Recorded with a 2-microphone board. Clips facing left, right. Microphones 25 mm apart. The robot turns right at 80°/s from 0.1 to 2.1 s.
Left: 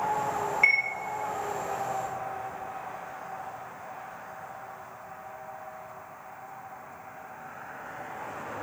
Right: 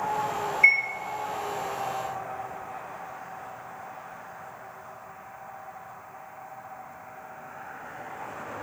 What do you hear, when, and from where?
0.6 s a chime: 30° left (ahead or behind), 1.6 m; by 0.8 s 20° left (ahead or behind), 1.6 m